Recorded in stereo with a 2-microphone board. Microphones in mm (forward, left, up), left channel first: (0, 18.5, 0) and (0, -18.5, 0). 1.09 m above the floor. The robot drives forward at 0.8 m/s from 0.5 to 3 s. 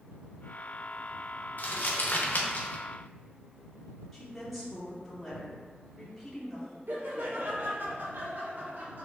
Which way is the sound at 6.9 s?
55° right (ahead or behind).